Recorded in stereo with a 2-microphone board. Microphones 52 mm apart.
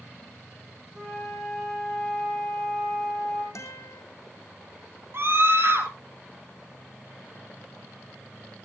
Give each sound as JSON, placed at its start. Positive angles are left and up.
{"t": 0.9, "sound": "a flute", "side_deg": -5, "distance_m": 6.0}
{"t": 3.5, "sound": "a guitar", "side_deg": 75, "distance_m": 4.5}
{"t": 5.1, "sound": "a scream", "side_deg": -50, "distance_m": 2.5}